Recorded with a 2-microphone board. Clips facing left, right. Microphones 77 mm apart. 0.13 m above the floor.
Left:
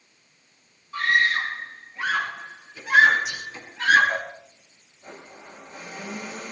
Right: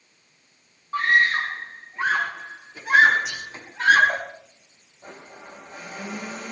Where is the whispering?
65° right (ahead or behind), 8.5 m.